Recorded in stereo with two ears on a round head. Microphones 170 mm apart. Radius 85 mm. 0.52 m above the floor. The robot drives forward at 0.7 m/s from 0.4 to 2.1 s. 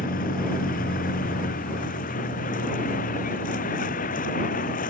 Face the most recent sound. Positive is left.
turn(degrees=45)  # may be behind; listen again after turning